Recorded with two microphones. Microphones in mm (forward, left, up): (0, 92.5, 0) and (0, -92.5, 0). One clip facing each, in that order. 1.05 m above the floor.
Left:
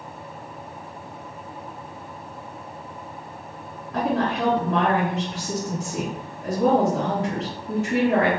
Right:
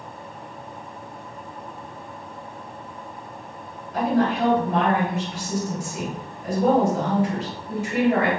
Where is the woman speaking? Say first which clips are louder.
Right 2 dB; 70° left (ahead or behind), 1.8 m.